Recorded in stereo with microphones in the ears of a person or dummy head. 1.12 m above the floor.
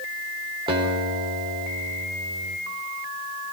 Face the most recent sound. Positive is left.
turn(degrees=-30)  # may be behind; listen again after turning